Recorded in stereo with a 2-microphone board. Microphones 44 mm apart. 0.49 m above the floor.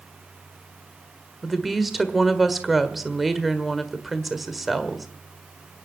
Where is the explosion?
I don't hear an explosion.